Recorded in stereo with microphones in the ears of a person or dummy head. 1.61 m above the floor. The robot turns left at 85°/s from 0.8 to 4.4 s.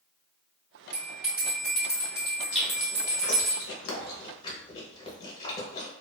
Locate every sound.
0.9 s a bell: 30° right (ahead or behind), 1.5 m; by 3.5 s 10° right (ahead or behind), 1.5 m
2.5 s chewing: 5° right (ahead or behind), 0.8 m; by 5.9 s 25° left (ahead or behind), 0.8 m